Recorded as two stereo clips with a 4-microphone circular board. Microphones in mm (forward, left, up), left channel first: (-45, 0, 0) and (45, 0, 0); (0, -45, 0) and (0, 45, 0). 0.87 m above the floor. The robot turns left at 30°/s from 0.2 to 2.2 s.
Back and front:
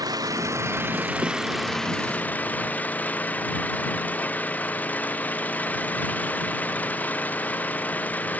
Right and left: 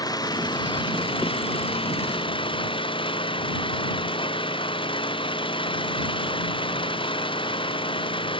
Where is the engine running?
45° right; by 8.4 s 105° right.